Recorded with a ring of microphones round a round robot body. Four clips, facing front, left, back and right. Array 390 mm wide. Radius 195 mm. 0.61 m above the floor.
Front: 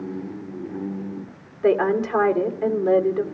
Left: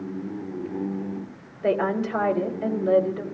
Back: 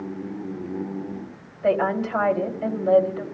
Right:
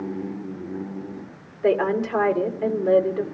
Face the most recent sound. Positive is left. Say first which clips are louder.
# right 3 dB, front 2 dB
turn(degrees=-20)